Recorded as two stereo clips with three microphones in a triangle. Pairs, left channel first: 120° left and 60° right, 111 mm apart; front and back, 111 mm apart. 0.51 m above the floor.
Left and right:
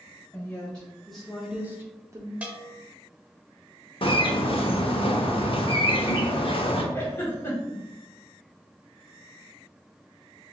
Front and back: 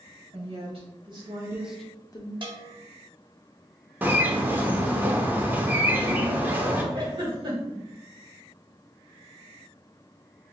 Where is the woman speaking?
160° right, 2 m; by 2.3 s 15° right, 1.1 m.